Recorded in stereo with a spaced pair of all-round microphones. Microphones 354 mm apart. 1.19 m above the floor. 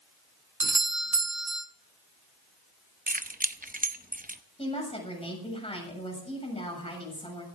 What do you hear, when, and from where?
0.6 s a doorbell: 50° right (ahead or behind), 0.7 m
3.1 s keys jangling: 25° right (ahead or behind), 0.7 m
4.6 s a woman speaking: 15° left (ahead or behind), 7 m